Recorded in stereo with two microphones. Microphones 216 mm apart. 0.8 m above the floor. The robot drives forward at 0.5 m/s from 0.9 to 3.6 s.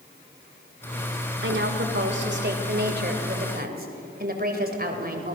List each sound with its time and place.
1.4 s a woman speaking: 65° right (ahead or behind), 2.5 m; by 5.4 s 45° right (ahead or behind), 3 m